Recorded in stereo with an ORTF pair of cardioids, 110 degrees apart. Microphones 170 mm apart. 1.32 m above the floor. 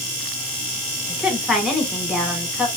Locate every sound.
1.1 s a woman speaking: straight ahead, 2.0 m